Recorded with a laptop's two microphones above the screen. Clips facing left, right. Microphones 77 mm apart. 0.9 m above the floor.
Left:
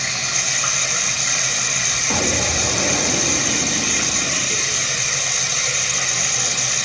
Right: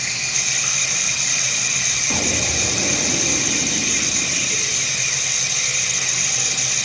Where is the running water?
60° left (ahead or behind), 3.5 m.